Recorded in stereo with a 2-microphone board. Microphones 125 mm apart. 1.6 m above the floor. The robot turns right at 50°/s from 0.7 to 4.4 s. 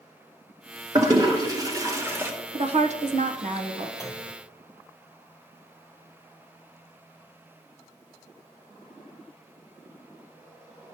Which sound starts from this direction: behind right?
A woman speaking, at 2.5 s.